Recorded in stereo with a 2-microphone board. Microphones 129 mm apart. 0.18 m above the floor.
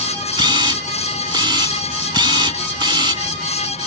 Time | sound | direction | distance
0.4 | a camera shutter | 35° right (ahead or behind) | ?